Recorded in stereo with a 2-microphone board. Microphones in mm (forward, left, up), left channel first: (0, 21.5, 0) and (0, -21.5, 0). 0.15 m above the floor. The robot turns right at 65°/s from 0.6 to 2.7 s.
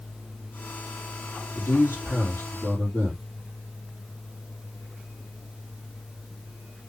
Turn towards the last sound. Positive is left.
turn(degrees=155)